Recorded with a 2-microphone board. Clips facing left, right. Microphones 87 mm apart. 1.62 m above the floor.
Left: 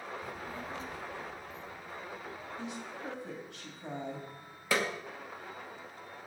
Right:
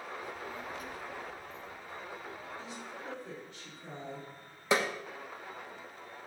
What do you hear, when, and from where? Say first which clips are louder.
0.2 s a child speaking: even; 40° left (ahead or behind), 0.5 m; by 2.5 s 10° left (ahead or behind), 3 m
2.6 s a woman speaking: left 3 dB; 70° left (ahead or behind), 2.5 m
4.7 s a snare drum: right 2 dB; 20° right (ahead or behind), 1.0 m